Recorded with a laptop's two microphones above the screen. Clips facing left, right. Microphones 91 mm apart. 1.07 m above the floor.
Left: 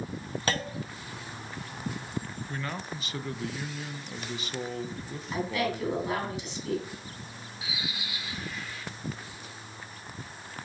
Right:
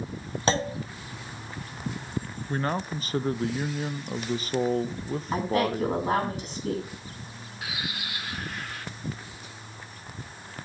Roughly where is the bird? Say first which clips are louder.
Right 3 dB; right.